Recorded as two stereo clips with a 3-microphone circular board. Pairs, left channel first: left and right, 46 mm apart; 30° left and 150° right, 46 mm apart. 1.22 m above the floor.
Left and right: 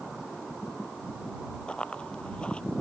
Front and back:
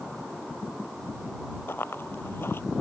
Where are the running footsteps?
25° left.